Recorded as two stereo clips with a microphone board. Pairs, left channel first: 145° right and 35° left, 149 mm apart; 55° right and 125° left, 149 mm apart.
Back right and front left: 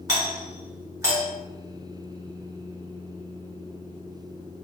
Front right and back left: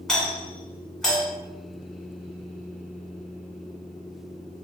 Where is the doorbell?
25° left, 1.6 m.